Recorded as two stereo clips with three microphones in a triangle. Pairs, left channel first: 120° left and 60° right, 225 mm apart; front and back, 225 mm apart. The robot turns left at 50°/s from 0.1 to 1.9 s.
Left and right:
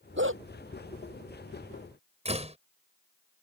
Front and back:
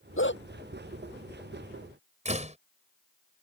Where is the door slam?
120° right.